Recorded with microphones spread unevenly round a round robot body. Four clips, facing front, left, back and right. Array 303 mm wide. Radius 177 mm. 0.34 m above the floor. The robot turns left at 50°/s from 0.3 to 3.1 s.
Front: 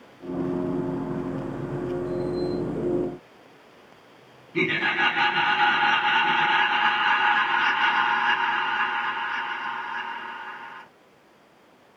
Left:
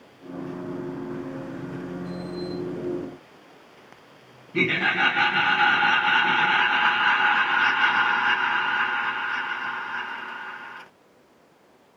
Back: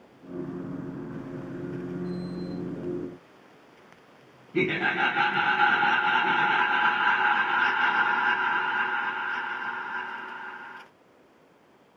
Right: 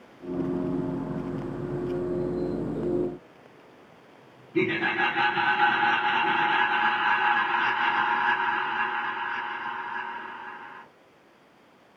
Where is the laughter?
150° left, 2 m.